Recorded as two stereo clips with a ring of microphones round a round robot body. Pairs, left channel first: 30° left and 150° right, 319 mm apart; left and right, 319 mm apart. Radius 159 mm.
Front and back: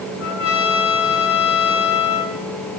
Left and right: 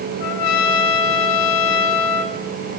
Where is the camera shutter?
No camera shutter in this recording.